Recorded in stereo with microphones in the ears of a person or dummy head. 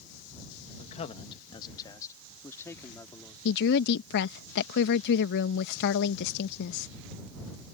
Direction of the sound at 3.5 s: 60° left (ahead or behind).